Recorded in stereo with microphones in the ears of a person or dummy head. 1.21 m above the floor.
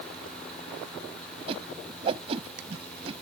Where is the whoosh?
35° right (ahead or behind).